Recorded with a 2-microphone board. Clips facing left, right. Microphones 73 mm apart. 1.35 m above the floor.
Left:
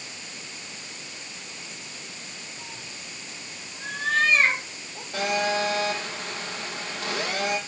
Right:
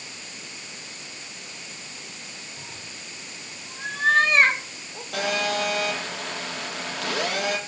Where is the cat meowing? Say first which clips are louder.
Even; 55° right (ahead or behind), 6.5 m; by 5.0 s 70° right (ahead or behind), 7 m.